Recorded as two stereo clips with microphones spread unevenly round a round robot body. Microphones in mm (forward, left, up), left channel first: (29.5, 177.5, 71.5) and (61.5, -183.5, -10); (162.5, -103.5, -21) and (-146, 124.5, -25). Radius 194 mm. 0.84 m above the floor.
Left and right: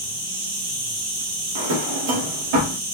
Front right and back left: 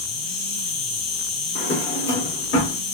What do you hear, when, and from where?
0.0 s an insect: 65° right, 2.5 m
1.6 s a drawer: 100° right, 1.1 m